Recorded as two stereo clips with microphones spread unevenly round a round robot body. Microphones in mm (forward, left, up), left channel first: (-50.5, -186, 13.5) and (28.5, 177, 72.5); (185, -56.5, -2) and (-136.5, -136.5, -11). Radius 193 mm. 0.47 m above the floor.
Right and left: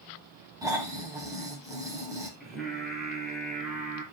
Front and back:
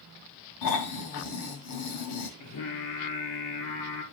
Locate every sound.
0.6 s snoring: 5° right, 2.5 m
2.4 s singing: 15° right, 4.5 m